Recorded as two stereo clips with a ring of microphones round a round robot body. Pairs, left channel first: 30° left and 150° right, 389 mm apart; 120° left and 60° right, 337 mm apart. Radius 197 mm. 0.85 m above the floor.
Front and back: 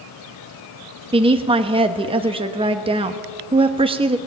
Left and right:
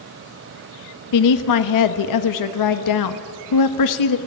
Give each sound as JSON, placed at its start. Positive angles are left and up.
{"t": 1.1, "sound": "a woman speaking", "azimuth_deg": 135, "distance_m": 1.0}